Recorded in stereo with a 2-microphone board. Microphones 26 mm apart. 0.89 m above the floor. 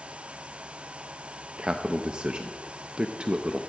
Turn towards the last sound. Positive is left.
turn(degrees=-35)  # may be behind; listen again after turning